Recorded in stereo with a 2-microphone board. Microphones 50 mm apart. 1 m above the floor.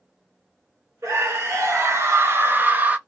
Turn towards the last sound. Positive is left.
turn(degrees=-30)  # may be behind; listen again after turning